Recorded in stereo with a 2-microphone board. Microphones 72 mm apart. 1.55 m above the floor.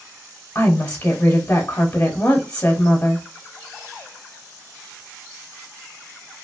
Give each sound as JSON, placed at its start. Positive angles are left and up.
{"t": 0.6, "sound": "a woman speaking", "side_deg": 20, "distance_m": 0.8}